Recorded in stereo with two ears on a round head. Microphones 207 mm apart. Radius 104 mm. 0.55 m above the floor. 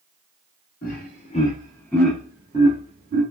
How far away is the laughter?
About 1.1 m.